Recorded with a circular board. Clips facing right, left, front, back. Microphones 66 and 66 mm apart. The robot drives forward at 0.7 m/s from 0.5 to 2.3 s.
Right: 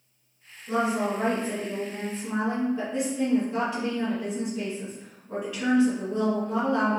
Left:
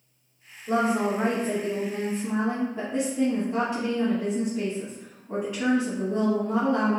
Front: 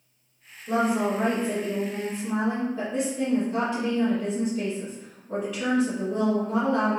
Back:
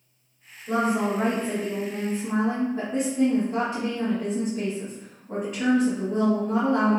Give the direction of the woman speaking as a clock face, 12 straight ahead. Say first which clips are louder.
Left 2 dB, even; 10 o'clock.